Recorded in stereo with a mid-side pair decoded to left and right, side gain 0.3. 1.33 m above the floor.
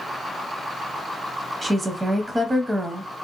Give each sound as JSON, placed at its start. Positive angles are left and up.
{"t": 1.6, "sound": "a woman speaking", "azimuth_deg": -25, "distance_m": 0.6}